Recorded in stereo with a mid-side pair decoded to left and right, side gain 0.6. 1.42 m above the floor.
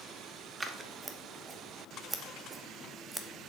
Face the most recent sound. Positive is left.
turn(degrees=-20)